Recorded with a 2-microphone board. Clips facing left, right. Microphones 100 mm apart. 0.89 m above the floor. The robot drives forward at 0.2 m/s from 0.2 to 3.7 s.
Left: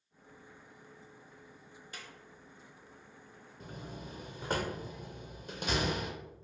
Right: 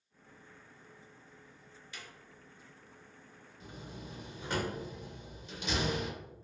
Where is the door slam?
50° left (ahead or behind), 0.5 m.